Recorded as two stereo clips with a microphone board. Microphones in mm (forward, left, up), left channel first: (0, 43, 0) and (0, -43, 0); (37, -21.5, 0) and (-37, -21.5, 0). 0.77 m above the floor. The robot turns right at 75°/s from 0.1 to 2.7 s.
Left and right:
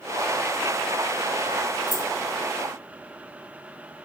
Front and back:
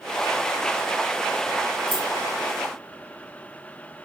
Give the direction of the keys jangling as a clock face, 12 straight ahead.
12 o'clock.